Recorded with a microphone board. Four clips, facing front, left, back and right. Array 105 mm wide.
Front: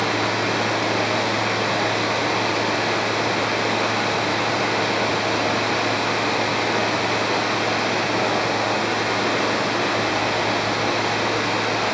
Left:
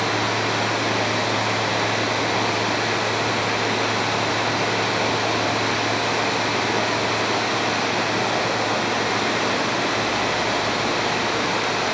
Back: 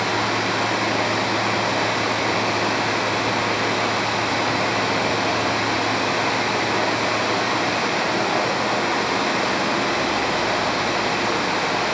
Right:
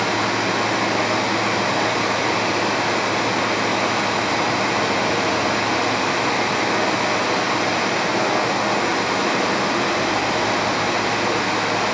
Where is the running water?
110° right, 3 m.